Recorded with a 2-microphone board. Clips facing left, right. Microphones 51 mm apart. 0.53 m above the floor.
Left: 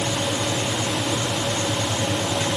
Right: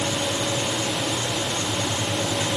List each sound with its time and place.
Only background noise.